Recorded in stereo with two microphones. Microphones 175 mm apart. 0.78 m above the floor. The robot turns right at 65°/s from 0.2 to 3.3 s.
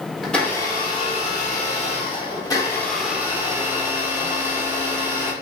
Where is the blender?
Straight ahead, 1.2 m; by 5.3 s 160° right, 1.2 m.